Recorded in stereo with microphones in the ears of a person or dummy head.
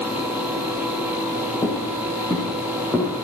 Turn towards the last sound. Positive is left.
turn(degrees=5)  # may be behind; listen again after turning